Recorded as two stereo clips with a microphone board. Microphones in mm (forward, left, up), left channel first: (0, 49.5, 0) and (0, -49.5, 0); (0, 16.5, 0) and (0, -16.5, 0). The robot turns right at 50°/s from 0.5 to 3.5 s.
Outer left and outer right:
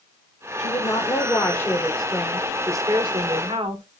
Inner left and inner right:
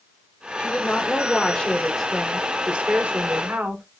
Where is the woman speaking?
105° left, 3.5 m; by 3.8 s 110° right, 3.5 m.